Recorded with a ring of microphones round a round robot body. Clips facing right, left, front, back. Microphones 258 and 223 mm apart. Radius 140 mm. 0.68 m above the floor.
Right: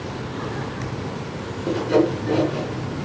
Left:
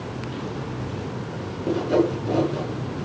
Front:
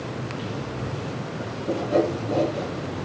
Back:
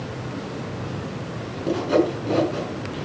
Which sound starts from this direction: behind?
Sawing, at 1.7 s.